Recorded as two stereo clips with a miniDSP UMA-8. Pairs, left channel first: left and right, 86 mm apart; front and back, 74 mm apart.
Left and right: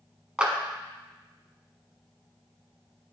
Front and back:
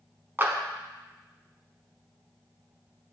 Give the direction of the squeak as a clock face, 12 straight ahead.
I don't hear a squeak.